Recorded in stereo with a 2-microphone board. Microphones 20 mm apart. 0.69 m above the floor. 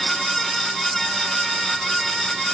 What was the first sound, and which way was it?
Only background noise.